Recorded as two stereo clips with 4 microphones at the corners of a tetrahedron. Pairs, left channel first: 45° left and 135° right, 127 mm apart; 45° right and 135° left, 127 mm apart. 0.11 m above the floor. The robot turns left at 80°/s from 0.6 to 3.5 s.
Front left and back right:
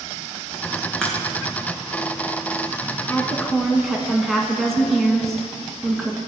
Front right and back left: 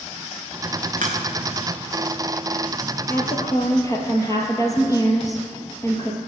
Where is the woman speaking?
5° right, 1.3 m; by 6.2 s 40° right, 1.3 m.